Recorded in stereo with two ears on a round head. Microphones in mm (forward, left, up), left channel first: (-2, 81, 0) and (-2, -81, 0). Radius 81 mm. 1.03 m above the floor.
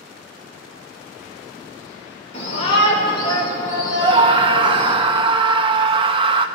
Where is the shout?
40° left (ahead or behind), 4.5 m; by 5.0 s 10° left (ahead or behind), 4 m.